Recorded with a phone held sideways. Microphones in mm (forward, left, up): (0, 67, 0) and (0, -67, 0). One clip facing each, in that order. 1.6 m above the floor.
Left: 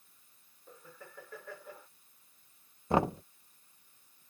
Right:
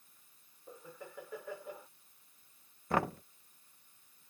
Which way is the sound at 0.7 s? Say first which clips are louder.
Right 3 dB; 15° right (ahead or behind).